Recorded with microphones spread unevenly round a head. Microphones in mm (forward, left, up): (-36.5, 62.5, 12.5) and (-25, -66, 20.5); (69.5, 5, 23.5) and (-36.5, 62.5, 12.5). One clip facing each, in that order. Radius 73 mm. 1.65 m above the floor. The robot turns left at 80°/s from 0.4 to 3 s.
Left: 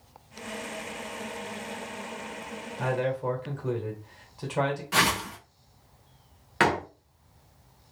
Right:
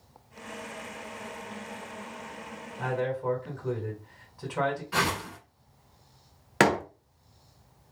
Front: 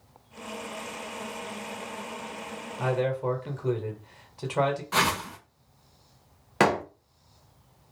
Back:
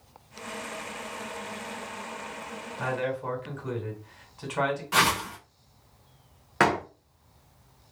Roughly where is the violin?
No violin in this recording.